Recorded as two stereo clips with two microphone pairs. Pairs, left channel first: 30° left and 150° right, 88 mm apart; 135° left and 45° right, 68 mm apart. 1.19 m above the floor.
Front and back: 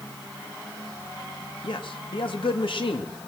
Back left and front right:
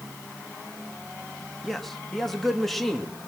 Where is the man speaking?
45° left, 2 m.